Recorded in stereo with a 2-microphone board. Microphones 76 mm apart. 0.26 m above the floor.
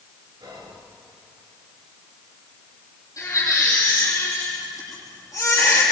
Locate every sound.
0.4 s whispering: 65° right (ahead or behind), 4 m
3.2 s a baby crying: 45° left (ahead or behind), 6 m